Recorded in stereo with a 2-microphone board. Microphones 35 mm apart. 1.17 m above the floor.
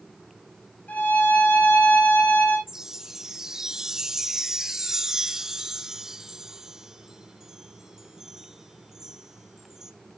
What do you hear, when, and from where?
0.9 s a violin: 55° left (ahead or behind), 6 m
2.7 s a chime: 15° right (ahead or behind), 0.7 m